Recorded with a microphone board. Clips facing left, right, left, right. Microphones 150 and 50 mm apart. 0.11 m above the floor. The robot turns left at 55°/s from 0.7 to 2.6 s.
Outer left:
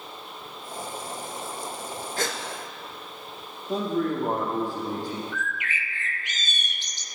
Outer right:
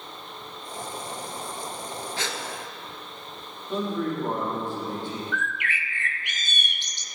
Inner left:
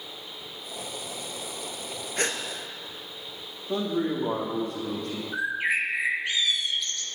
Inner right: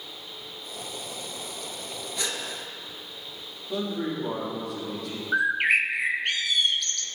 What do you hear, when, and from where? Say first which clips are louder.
2.2 s a gasp: outer left 5 dB, inner left 5 dB; 50° left (ahead or behind), 1.3 m
3.7 s a man speaking: outer left 2 dB, inner left 3 dB; 40° left (ahead or behind), 5 m
5.3 s a bird: outer right 2 dB, inner right 5 dB; 65° right (ahead or behind), 0.7 m